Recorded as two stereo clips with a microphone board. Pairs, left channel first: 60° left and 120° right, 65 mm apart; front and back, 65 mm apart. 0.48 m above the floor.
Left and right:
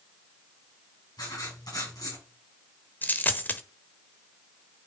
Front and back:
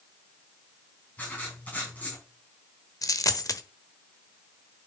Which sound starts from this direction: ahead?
A dropped coin, at 3.0 s.